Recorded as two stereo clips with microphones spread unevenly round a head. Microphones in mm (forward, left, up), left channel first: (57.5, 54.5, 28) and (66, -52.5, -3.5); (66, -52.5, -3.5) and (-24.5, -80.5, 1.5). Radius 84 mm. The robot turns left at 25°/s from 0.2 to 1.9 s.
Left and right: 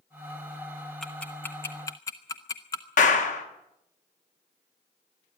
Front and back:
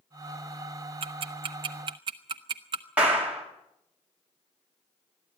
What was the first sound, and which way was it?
Ticking, 170° left.